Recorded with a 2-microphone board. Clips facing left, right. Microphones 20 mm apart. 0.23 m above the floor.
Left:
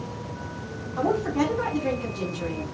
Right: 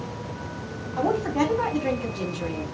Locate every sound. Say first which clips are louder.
1.0 s a woman speaking: right 1 dB; 35° right (ahead or behind), 2.0 m